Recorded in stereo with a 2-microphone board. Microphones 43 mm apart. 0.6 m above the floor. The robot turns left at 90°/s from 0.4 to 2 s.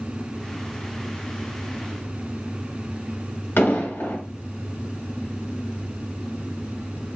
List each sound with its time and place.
3.6 s an explosion: 55° left (ahead or behind), 2 m